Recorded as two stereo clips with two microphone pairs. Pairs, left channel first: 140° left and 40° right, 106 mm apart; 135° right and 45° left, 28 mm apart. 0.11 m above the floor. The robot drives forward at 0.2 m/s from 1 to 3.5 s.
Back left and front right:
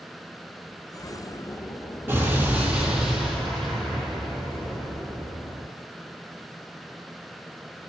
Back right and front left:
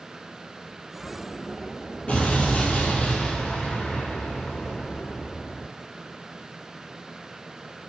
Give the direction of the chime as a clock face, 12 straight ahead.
No chime in this recording.